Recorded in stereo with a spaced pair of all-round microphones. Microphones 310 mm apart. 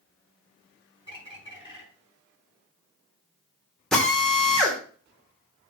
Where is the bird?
15° right (ahead or behind), 6 m.